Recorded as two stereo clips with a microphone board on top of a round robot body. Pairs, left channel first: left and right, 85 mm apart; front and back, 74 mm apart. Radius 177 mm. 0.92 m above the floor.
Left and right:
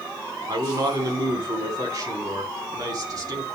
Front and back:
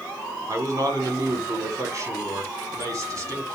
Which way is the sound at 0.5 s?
135° right.